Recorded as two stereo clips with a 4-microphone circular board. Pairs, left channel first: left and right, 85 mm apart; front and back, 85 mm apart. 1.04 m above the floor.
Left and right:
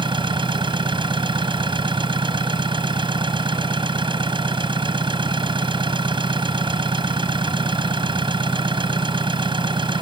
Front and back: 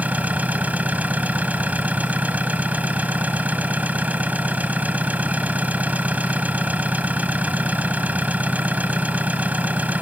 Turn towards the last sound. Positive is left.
turn(degrees=-110)